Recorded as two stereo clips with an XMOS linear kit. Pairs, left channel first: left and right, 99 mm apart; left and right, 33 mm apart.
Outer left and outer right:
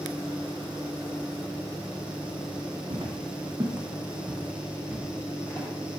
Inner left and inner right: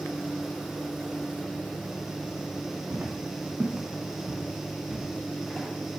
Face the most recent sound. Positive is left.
turn(degrees=25)  # may be behind; listen again after turning